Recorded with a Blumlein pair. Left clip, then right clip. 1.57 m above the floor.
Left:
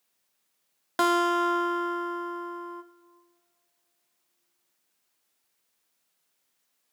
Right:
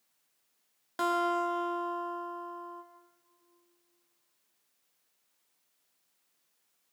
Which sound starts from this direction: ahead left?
A guitar, at 1.0 s.